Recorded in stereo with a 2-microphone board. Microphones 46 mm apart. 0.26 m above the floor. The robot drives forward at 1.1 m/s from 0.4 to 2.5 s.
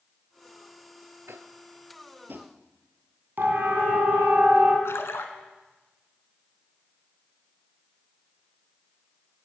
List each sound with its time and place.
1.3 s tapping: 70° right (ahead or behind), 1.0 m; by 2.5 s 40° right (ahead or behind), 1.3 m
3.4 s a siren: 50° right (ahead or behind), 2.5 m; by 4.8 s 45° right (ahead or behind), 3 m
4.8 s a splash: 70° left (ahead or behind), 1.6 m